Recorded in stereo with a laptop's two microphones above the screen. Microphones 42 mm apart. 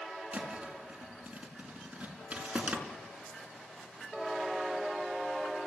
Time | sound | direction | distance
0.3 | a thud | 30° right (ahead or behind) | 5 m